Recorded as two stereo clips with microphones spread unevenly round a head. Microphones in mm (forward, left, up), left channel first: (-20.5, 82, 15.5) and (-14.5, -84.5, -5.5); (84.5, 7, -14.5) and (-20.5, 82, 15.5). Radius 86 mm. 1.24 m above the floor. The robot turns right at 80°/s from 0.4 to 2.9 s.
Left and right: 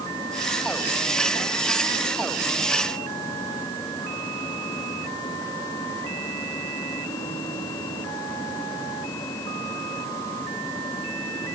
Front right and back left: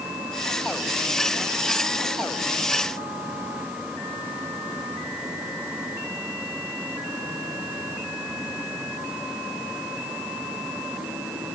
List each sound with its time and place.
Only background noise.